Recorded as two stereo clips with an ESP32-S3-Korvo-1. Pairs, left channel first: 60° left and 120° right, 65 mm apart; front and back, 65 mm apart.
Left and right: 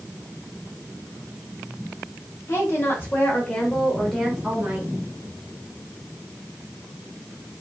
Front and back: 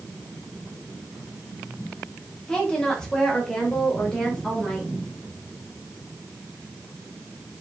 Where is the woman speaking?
70° left, 1.3 m; by 4.9 s 80° right, 1.1 m.